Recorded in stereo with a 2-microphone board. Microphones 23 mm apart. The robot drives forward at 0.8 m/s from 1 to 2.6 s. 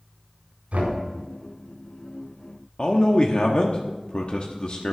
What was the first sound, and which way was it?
Knocking, 80° right.